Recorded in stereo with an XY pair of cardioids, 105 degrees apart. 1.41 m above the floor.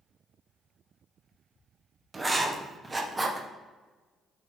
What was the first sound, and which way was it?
Writing, 20° right.